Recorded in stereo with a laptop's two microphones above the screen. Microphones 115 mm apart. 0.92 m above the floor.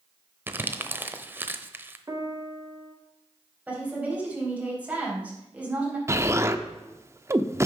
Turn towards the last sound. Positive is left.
turn(degrees=-25)  # may be behind; listen again after turning